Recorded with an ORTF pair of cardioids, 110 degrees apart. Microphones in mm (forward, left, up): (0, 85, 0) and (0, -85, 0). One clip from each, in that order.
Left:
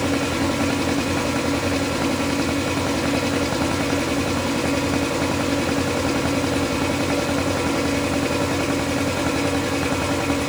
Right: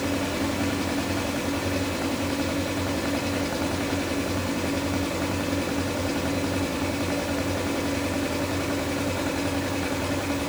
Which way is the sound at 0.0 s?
35° left.